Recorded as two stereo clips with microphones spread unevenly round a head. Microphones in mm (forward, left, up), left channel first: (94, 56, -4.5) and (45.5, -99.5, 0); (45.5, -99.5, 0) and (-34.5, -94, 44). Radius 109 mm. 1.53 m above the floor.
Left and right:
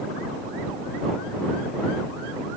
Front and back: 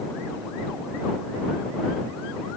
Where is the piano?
No piano in this recording.